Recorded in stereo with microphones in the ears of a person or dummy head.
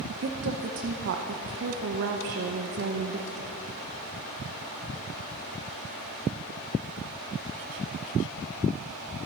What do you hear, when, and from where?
0.1 s a woman speaking: 55° right (ahead or behind), 0.8 m